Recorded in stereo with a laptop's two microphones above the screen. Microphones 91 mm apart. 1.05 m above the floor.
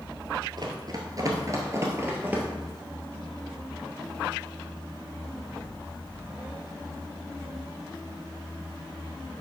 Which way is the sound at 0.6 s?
50° right (ahead or behind).